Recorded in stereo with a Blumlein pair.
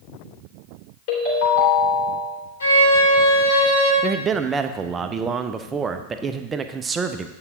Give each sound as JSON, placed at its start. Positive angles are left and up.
{"t": 1.1, "sound": "a ringtone", "azimuth_deg": 45, "distance_m": 3.0}
{"t": 2.6, "sound": "a violin", "azimuth_deg": 70, "distance_m": 3.5}
{"t": 4.0, "sound": "a man speaking", "azimuth_deg": -20, "distance_m": 0.6}